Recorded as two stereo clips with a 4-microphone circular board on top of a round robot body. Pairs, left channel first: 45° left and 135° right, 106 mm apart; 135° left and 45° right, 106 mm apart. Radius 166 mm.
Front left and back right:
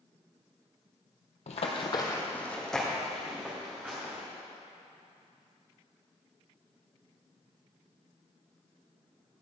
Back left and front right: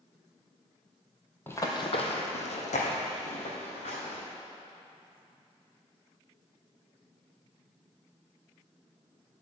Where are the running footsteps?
65° left, 1.0 m; by 4.2 s 150° left, 3.5 m.